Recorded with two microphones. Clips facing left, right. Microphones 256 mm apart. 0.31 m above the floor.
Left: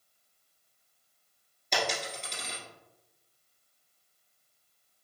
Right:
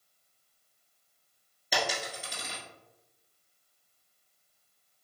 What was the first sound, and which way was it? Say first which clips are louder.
A dropped coin: even; 5° right (ahead or behind).